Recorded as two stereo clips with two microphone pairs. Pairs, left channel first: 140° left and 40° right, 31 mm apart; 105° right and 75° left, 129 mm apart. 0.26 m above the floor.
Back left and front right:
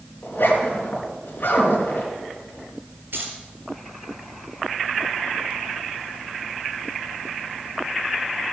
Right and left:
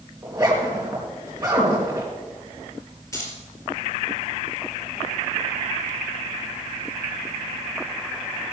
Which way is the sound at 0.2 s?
140° left.